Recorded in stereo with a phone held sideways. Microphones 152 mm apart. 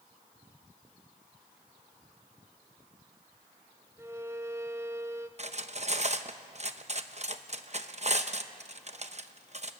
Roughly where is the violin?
Centre.